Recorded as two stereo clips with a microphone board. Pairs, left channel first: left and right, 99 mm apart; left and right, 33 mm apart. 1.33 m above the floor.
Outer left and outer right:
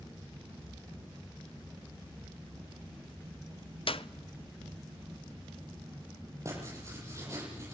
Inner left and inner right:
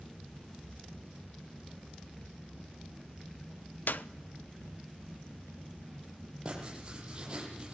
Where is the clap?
65° left (ahead or behind), 0.7 m.